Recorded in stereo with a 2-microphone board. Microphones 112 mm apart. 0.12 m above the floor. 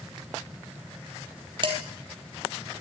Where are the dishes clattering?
45° right (ahead or behind), 1.9 m.